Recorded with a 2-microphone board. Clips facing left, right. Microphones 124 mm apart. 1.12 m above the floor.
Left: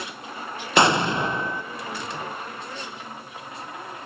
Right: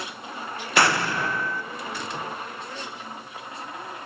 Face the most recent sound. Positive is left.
turn(degrees=20)  # may be behind; listen again after turning